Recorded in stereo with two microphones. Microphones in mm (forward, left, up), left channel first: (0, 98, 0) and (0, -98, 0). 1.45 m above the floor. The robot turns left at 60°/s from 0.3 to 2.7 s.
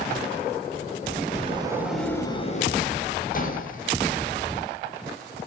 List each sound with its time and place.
1.4 s a sliding door: 145° right, 7.5 m; by 4.6 s 135° left, 7.5 m